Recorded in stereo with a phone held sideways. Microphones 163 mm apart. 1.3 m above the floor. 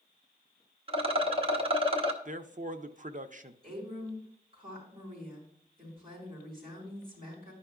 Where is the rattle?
35° right (ahead or behind), 1.0 m.